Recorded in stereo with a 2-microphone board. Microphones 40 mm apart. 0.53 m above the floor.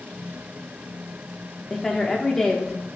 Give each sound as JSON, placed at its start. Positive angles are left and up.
{"t": 1.7, "sound": "a woman speaking", "side_deg": 10, "distance_m": 0.9}